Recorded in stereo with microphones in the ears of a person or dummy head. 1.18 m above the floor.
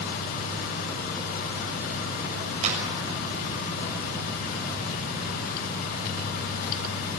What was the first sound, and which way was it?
A clap, 40° right (ahead or behind).